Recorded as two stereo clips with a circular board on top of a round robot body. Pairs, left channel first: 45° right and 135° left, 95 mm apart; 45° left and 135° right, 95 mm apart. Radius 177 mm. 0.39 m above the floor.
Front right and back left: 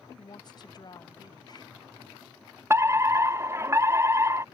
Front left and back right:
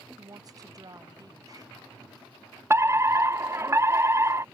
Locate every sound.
0.2 s a woman speaking: 85° right
2.7 s a fire alarm: straight behind